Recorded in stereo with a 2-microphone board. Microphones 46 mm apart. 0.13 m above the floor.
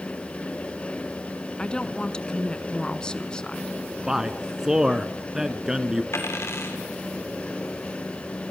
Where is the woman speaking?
20° left (ahead or behind), 1.1 m.